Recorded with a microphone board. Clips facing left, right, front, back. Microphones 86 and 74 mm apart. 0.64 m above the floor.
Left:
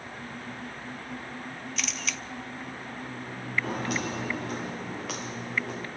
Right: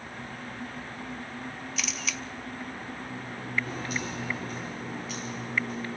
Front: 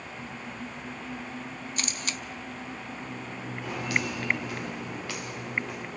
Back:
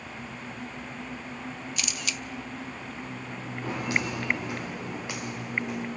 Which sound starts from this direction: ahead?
A camera shutter, at 1.8 s.